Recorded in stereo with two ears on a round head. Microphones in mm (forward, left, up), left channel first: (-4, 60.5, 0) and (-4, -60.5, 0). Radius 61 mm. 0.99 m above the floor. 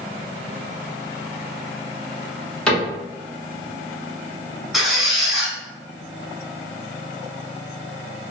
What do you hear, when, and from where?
2.7 s a cupboard door: 10° left (ahead or behind), 1.2 m
4.7 s a squeak: centre (ahead or behind), 1.1 m